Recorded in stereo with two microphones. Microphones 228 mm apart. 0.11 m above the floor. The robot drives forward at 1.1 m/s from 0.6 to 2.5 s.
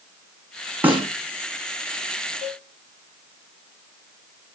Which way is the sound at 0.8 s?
5° right (ahead or behind).